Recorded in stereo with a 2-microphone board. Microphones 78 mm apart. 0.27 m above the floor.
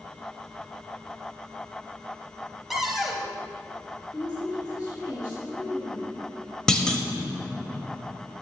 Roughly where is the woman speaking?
Left.